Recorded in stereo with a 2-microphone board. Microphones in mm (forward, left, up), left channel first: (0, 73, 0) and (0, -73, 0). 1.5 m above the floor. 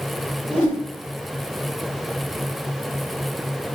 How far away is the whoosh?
About 1.0 m.